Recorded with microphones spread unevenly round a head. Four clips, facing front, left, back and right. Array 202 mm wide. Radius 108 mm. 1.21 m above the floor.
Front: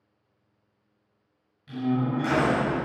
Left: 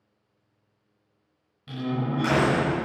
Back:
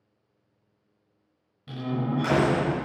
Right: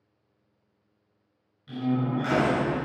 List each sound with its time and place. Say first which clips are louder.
1.7 s a door slam: right 2 dB, front 3 dB; 165° left, 6 m